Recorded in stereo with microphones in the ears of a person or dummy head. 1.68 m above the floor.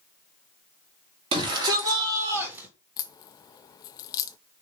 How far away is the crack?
About 0.5 m.